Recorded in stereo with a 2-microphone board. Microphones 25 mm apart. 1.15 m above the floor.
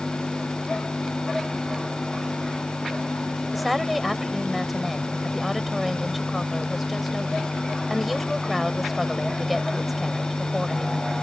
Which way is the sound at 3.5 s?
Centre (ahead or behind).